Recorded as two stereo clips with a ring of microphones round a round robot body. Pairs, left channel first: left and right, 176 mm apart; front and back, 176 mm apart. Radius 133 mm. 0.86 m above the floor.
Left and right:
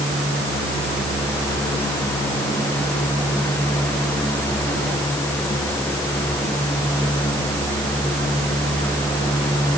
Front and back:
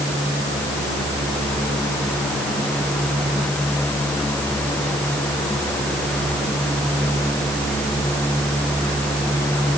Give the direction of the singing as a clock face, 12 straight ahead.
No singing in this recording.